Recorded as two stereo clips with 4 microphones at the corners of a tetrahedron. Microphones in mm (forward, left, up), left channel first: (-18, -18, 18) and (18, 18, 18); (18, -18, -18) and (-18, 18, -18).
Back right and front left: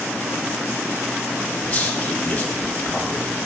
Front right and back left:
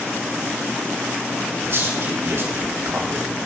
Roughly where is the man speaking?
Behind.